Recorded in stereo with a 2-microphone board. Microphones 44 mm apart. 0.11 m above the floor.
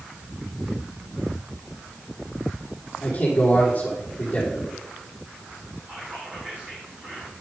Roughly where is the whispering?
Right.